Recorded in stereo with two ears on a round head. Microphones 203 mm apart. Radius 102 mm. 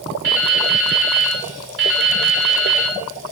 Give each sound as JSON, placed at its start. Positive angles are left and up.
{"t": 0.2, "sound": "dripping", "side_deg": -55, "distance_m": 4.0}